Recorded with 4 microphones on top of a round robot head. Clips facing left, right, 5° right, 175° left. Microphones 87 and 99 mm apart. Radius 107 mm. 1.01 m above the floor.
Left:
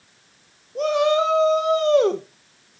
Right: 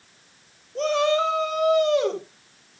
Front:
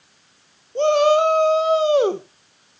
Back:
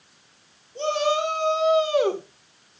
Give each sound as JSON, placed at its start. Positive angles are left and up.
{"t": 0.8, "sound": "a shout", "azimuth_deg": 10, "distance_m": 1.7}